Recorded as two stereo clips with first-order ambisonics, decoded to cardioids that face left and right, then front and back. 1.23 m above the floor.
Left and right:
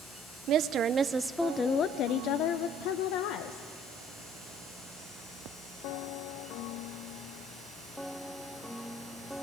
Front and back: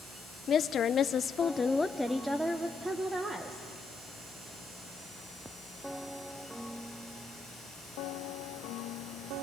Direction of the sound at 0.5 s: 55° right.